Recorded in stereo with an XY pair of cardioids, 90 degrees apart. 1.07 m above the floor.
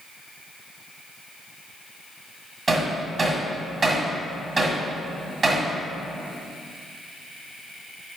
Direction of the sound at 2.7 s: 40° right.